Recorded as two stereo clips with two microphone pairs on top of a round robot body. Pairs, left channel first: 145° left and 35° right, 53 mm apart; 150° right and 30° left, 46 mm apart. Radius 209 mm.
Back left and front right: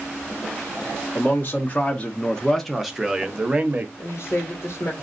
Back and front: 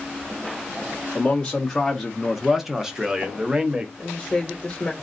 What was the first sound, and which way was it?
A man speaking, 135° left.